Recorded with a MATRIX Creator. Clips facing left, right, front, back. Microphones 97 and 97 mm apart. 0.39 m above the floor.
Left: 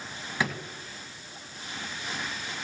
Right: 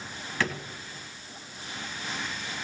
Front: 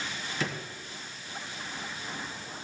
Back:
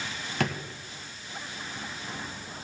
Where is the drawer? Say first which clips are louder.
Even, back 5 dB; 165° left, 2.0 m.